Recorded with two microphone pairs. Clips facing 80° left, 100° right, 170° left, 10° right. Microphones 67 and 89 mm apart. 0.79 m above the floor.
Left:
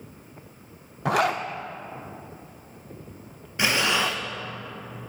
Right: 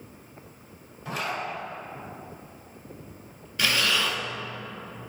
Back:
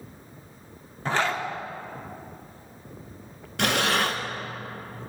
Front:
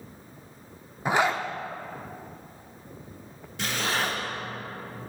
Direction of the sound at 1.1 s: 65° left.